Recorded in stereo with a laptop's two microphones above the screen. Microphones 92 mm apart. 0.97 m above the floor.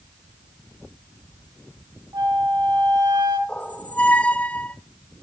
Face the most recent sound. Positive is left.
turn(degrees=15)  # may be behind; listen again after turning